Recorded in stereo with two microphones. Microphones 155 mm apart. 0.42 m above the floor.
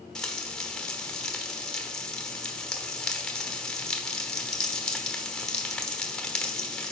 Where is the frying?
5° left (ahead or behind), 1.1 m.